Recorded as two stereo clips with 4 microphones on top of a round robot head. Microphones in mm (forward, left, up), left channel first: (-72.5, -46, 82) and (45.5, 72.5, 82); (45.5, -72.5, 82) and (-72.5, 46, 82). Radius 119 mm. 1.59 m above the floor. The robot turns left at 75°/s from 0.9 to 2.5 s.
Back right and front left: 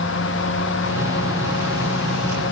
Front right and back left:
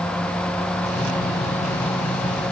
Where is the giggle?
No giggle in this recording.